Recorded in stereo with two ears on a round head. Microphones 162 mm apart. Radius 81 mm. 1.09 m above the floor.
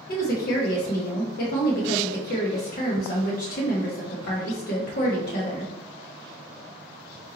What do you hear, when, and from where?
0.1 s a woman speaking: 55° left (ahead or behind), 0.9 m